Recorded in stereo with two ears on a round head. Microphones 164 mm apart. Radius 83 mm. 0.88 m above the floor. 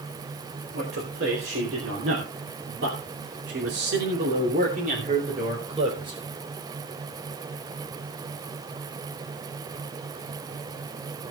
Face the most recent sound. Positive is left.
turn(degrees=-25)  # may be behind; listen again after turning